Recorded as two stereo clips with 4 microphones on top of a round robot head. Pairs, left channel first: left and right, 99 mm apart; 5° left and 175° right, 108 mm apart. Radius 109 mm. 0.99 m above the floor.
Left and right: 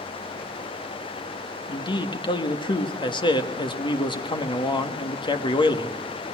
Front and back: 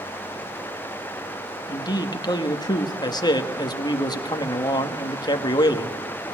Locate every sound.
1.7 s a man speaking: 55° left, 1.9 m